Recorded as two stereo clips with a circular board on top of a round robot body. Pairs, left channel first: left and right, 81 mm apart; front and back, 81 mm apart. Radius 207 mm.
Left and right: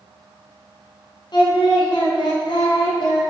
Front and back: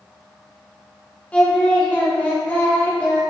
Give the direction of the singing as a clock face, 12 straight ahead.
10 o'clock.